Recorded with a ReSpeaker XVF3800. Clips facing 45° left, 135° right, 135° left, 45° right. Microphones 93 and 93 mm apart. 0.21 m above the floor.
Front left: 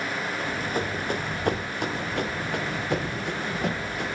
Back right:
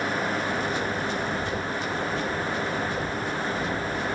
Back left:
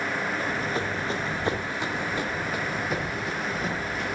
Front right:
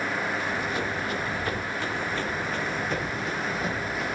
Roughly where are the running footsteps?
Left.